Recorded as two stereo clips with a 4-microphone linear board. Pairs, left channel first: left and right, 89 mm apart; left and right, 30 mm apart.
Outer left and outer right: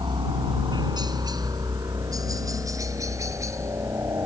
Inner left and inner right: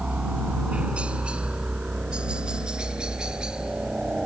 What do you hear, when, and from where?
0.0 s a helicopter: 55° right (ahead or behind); by 4.3 s 30° right (ahead or behind)